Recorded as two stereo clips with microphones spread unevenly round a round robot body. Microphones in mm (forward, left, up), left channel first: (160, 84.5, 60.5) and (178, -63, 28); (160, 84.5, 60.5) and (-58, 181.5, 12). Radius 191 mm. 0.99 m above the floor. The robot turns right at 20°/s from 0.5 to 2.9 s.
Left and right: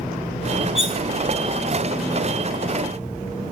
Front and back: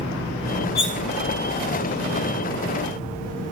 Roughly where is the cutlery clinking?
Ahead right.